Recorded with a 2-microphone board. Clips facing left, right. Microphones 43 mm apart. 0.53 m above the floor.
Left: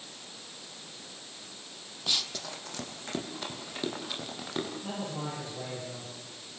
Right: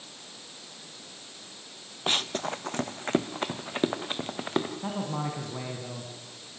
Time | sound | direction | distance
2.1 | running footsteps | 40° right (ahead or behind) | 0.6 m
4.8 | a man speaking | 80° right | 4.5 m